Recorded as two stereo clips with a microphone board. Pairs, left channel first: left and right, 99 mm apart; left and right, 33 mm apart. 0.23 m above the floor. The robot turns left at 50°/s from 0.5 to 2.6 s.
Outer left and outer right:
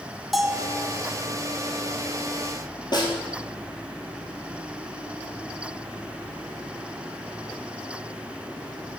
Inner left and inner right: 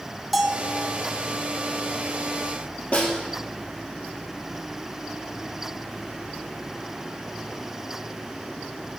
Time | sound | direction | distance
0.3 | a bell | centre (ahead or behind) | 0.8 m
2.9 | a snare drum | 50° left (ahead or behind) | 2.5 m